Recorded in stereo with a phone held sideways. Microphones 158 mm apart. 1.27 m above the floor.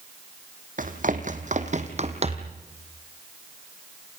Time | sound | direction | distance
0.8 | running footsteps | 60° right (ahead or behind) | 2.5 m